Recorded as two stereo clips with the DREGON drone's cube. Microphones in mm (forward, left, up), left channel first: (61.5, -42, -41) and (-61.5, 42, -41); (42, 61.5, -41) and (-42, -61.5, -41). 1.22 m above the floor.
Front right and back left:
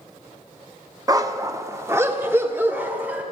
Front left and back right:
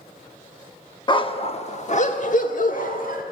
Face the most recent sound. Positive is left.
turn(degrees=65)